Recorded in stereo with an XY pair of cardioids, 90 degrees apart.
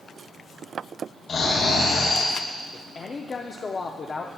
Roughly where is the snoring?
Left.